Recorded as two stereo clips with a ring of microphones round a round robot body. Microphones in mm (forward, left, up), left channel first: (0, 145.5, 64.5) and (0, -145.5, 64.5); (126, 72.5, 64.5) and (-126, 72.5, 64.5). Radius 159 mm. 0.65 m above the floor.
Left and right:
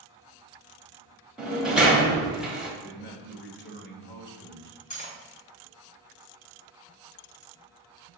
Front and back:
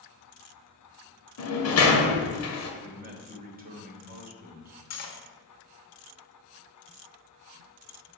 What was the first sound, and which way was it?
A sliding door, 5° right.